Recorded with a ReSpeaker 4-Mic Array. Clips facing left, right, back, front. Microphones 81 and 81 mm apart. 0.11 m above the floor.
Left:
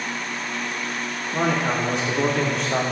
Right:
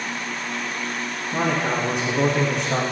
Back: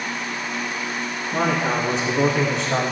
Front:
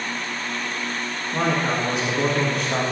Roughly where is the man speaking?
Behind right.